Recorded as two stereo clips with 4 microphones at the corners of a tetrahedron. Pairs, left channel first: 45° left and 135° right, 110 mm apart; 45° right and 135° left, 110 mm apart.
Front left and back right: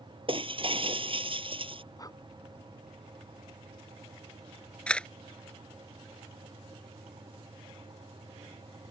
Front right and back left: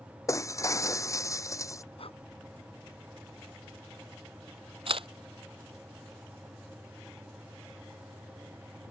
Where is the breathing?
10° right.